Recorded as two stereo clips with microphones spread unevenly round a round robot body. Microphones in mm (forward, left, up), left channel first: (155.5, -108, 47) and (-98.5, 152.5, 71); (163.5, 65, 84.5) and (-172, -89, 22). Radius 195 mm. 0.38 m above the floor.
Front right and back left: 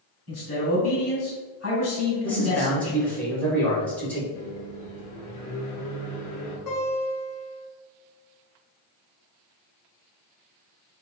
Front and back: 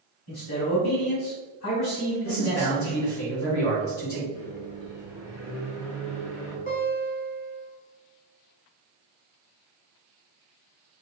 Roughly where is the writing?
No writing in this recording.